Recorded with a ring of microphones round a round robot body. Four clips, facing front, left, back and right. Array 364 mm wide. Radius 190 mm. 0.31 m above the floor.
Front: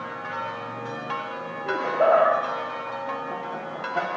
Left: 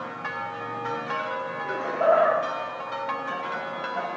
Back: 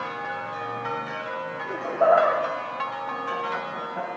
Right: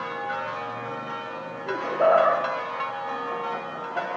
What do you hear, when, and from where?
1.7 s laughter: 10° right, 10 m; by 4.1 s 15° right, 11.5 m